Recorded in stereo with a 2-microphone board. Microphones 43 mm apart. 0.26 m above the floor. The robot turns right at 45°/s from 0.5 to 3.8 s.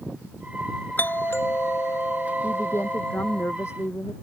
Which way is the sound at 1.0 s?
45° left.